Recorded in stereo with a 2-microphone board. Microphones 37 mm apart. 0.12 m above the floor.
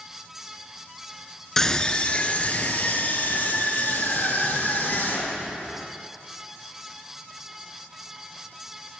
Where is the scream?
10° left (ahead or behind), 1.3 m; by 5.5 s 60° left (ahead or behind), 5 m.